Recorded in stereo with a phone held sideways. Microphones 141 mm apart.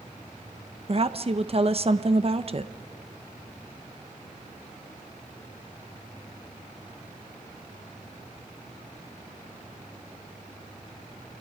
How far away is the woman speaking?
About 1.0 m.